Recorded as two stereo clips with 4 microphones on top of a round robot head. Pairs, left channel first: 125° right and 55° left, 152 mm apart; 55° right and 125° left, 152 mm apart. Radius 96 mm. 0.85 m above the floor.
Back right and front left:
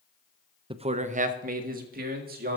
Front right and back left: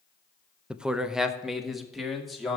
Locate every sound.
0.7 s a man speaking: 50° left, 0.8 m; by 2.6 s 35° left, 2.5 m